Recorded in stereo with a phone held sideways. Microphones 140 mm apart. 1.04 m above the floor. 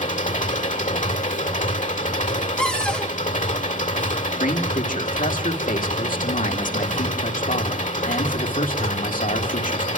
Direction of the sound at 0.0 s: 75° left (ahead or behind).